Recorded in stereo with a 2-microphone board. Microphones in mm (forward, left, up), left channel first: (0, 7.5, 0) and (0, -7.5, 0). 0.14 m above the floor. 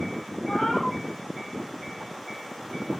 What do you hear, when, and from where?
0.5 s a cat meowing: 70° left (ahead or behind), 1.7 m